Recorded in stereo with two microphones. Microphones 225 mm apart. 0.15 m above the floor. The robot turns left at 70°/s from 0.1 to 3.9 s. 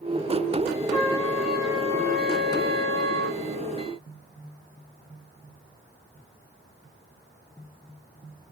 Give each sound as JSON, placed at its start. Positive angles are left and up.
{"t": 0.9, "sound": "a trumpet", "azimuth_deg": 35, "distance_m": 1.2}